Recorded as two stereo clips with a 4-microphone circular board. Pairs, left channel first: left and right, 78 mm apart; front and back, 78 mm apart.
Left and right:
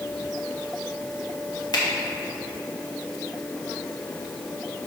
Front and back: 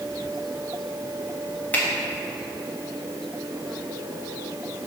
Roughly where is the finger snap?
Left.